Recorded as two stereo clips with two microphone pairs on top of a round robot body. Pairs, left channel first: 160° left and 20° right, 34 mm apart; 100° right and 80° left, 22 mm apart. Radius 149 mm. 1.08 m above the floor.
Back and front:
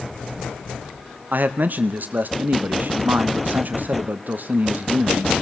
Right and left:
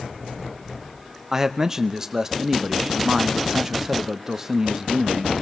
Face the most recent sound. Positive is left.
turn(degrees=10)